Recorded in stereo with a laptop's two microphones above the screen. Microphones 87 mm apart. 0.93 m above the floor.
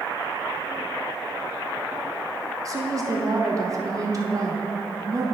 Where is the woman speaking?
35° right (ahead or behind), 1.0 m.